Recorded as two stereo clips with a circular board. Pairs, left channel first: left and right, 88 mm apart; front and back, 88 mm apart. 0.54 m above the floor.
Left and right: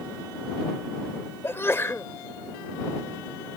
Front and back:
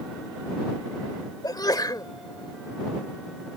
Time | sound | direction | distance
1.4 | a sneeze | 35° left | ?